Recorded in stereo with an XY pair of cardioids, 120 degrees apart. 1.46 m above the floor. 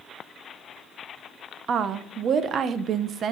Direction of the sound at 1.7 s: 45° right.